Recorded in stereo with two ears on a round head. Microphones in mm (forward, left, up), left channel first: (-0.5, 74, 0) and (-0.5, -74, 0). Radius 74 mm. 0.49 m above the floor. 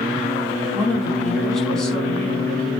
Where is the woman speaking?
5° left (ahead or behind), 4.5 m.